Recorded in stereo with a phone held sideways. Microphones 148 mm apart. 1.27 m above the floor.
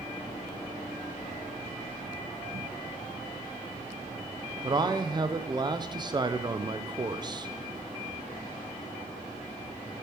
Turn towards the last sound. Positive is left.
turn(degrees=-30)  # may be behind; listen again after turning